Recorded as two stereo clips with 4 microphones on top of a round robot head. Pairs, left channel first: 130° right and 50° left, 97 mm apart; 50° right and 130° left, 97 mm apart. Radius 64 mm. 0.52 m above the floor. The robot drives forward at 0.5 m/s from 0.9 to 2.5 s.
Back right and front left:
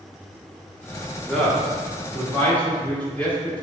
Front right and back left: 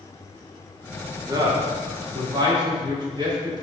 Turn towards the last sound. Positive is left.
turn(degrees=155)